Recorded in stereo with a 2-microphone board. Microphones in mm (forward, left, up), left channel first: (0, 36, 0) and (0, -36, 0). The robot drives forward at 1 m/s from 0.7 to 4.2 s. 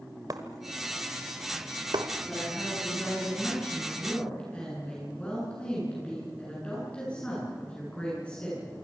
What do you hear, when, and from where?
0.3 s breaking glass: 60° right (ahead or behind), 1.8 m; by 2.1 s 70° right (ahead or behind), 1.6 m
2.3 s a woman speaking: 20° left (ahead or behind), 7.5 m; by 8.7 s 15° left (ahead or behind), 9.5 m